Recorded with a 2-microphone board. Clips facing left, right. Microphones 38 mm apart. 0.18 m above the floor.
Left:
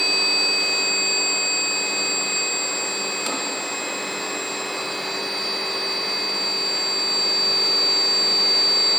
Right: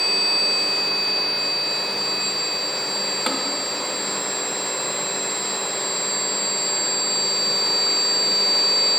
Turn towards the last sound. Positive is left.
turn(degrees=-35)  # may be behind; listen again after turning